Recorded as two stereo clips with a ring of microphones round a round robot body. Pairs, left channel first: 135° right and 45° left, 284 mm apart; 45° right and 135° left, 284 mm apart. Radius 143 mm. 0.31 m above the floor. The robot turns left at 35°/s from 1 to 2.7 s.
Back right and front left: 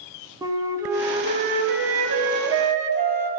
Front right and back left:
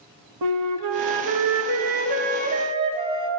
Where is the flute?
125° left, 0.9 m; by 3.3 s 65° left, 0.9 m.